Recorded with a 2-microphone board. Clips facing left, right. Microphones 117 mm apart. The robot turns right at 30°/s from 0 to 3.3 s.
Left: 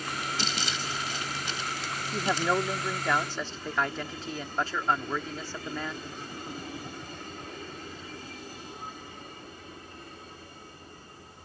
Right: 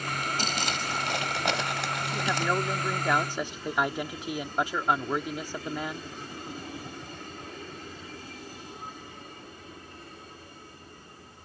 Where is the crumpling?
130° right; by 2.5 s 70° right.